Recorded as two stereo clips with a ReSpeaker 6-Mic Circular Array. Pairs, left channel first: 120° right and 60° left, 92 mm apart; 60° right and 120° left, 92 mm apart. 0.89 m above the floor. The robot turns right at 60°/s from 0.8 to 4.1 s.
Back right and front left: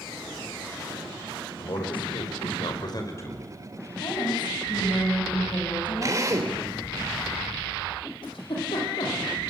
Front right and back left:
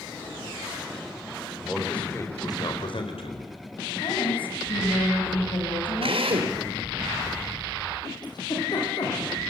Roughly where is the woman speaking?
Right.